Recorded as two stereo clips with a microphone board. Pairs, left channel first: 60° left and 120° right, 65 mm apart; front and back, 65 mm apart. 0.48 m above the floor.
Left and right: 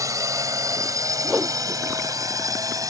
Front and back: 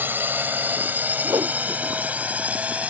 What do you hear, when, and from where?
0.0 s a drone: 130° right; by 2.9 s 115° right
1.2 s a whoosh: 165° left